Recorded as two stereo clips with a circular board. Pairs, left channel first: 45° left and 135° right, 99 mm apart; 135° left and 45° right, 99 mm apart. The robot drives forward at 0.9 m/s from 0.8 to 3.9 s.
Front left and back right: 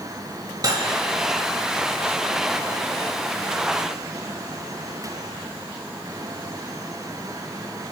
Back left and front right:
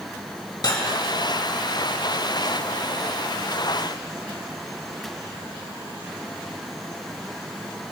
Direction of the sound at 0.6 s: Straight behind.